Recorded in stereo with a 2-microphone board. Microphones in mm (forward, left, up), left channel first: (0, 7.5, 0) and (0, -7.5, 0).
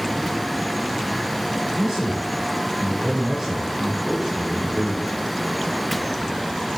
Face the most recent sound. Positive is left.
turn(degrees=-35)  # may be behind; listen again after turning